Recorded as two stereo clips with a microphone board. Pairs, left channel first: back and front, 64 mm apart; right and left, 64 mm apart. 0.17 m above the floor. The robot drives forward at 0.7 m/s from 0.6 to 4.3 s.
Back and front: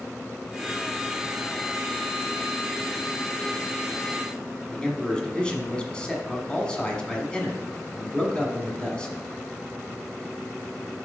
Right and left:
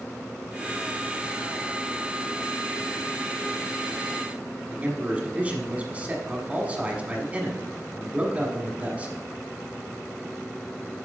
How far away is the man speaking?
About 1.2 m.